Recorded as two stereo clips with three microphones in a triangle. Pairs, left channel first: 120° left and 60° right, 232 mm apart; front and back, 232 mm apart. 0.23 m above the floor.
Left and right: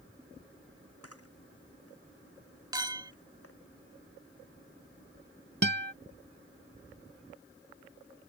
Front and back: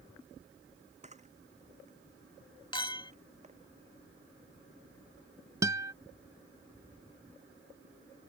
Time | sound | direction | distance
1.0 | a camera shutter | 120° left | ?
2.7 | a clink | 20° right | ?
5.6 | a guitar | 105° right | ?